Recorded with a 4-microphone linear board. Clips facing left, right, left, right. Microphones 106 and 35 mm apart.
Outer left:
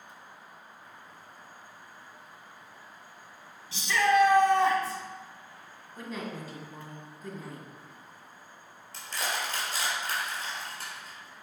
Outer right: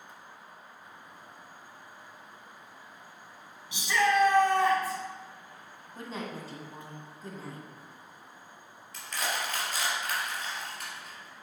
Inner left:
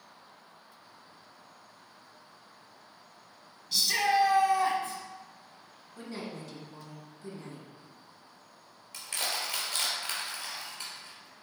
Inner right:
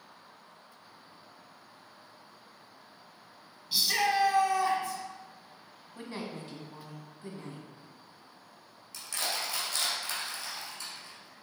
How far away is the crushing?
About 2.5 m.